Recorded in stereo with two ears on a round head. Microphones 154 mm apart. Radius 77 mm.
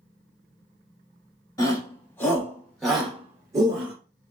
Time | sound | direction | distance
1.6 | a shout | 20° left (ahead or behind) | 2 m